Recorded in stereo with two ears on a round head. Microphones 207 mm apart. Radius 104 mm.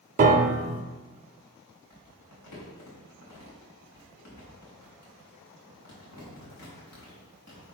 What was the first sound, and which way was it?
A piano, 35° right (ahead or behind).